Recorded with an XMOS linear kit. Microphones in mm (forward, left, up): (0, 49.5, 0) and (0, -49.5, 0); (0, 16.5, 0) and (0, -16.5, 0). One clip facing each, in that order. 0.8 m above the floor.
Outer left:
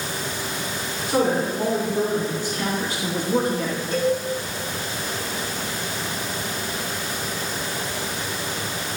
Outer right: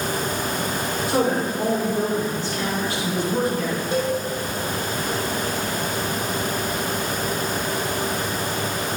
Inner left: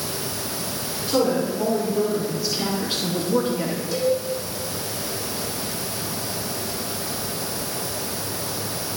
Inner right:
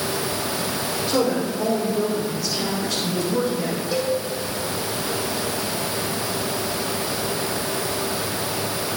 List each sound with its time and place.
1.1 s a woman speaking: 5° right (ahead or behind), 2.5 m; by 3.8 s 60° left (ahead or behind), 1.5 m
3.9 s a cowbell: 30° right (ahead or behind), 2.5 m